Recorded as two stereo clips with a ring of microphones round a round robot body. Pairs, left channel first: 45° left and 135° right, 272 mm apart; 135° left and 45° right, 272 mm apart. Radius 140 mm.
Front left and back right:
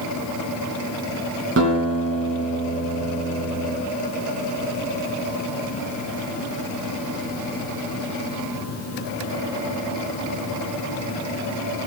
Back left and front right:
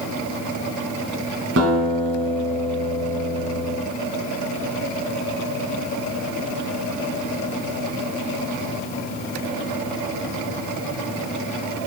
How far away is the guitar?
About 2 m.